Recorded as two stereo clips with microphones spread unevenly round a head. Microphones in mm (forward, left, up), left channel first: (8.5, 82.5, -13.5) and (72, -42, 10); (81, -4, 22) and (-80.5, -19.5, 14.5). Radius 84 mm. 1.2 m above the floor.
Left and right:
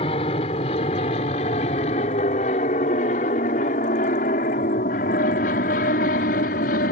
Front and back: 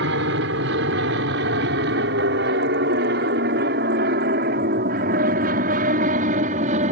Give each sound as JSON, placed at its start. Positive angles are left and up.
{"t": 0.0, "sound": "an aircraft", "azimuth_deg": 175}